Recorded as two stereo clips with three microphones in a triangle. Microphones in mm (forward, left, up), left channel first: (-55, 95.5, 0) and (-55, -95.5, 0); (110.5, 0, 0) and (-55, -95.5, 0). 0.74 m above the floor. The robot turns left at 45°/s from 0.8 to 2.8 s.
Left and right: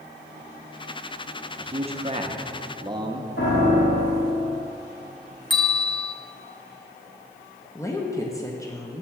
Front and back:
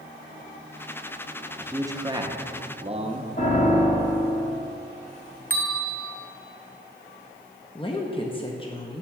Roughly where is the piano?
Left.